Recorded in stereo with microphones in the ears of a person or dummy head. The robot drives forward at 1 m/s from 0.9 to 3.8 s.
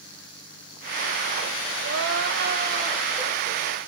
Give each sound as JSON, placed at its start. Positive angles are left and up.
{"t": 1.8, "sound": "crying", "side_deg": -70, "distance_m": 1.6}